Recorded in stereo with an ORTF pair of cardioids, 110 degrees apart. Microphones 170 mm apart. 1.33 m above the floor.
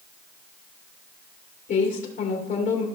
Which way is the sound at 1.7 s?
50° left.